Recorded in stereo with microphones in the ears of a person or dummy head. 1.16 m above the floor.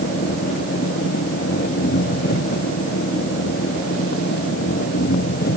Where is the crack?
I don't hear a crack.